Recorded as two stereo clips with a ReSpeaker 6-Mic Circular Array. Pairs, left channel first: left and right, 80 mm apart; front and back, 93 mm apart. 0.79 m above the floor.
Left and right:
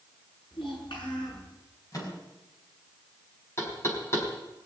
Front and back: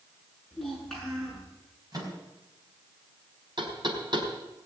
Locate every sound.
0.5 s a child speaking: 85° left, 8 m
1.9 s a microwave: 135° left, 4.5 m
3.6 s knocking: 145° left, 4 m